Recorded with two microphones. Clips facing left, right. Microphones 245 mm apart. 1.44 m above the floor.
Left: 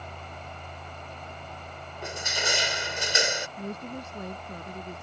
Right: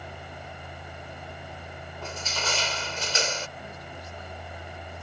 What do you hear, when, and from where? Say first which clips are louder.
2.0 s crushing: left 2 dB; 15° left (ahead or behind)
3.6 s a woman speaking: left 7 dB; 55° left (ahead or behind)